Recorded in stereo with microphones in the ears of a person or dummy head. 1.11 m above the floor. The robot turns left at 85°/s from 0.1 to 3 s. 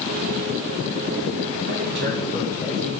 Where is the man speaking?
90° right, 1.3 m; by 2.9 s 165° left, 1.3 m.